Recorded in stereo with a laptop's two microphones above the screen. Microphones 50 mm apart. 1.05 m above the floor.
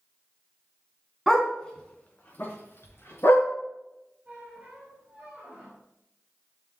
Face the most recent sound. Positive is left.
turn(degrees=-20)  # may be behind; listen again after turning